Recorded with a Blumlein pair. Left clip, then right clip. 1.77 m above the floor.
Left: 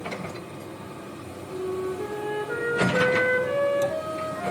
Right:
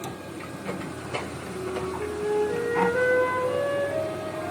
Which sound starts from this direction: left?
A flute, at 1.5 s.